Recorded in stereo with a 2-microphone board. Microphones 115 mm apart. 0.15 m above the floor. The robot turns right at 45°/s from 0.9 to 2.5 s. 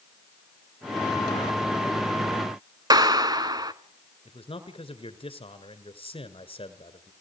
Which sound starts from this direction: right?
A clap, at 2.9 s.